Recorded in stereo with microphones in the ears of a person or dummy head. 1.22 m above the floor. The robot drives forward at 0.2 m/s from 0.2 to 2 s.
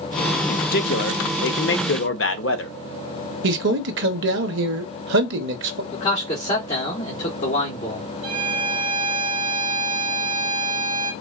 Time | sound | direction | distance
0.5 | a man speaking | 50° left (ahead or behind) | 0.6 m
3.4 | a man speaking | 60° right (ahead or behind) | 0.6 m
5.9 | a man speaking | 30° left (ahead or behind) | 1.1 m
8.2 | a violin | 30° right (ahead or behind) | 0.8 m